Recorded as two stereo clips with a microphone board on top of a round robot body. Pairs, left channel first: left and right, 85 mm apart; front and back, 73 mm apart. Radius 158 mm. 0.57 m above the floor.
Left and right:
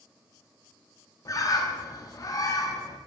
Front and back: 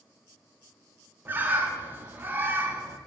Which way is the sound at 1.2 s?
120° left.